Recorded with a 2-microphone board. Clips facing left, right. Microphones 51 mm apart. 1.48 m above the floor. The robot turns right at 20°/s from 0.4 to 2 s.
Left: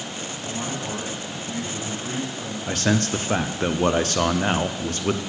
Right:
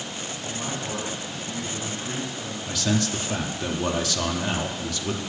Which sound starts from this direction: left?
A man speaking, at 2.7 s.